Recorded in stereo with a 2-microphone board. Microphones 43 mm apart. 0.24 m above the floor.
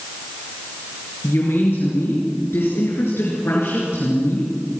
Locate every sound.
1.2 s a woman speaking: 65° left (ahead or behind), 4.5 m